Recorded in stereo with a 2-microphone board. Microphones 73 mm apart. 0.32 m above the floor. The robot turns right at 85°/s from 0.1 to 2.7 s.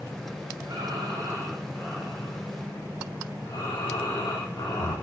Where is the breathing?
100° right, 4 m; by 4.9 s 75° left, 4 m.